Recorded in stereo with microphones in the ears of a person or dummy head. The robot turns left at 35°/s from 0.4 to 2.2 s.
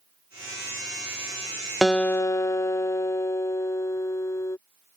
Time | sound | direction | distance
1.8 | a guitar | centre (ahead or behind) | ?